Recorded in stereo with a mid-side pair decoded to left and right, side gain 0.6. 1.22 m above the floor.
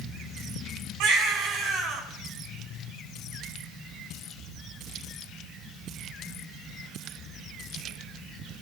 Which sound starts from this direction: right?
A baby crying, at 1.0 s.